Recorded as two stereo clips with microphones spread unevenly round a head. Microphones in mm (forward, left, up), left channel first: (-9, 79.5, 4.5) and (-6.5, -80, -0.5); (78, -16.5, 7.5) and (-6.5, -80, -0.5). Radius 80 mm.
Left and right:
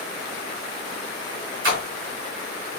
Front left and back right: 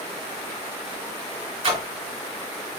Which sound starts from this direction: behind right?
A splash, at 1.6 s.